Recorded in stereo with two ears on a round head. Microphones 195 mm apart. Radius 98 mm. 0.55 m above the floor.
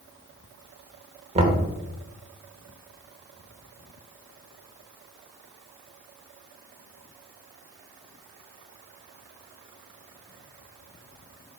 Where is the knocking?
30° right (ahead or behind), 1.3 m.